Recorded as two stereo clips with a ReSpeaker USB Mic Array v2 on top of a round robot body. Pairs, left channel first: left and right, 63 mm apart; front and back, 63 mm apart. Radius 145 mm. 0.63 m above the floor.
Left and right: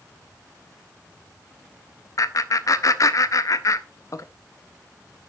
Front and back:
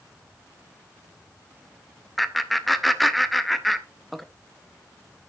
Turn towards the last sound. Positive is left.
turn(degrees=90)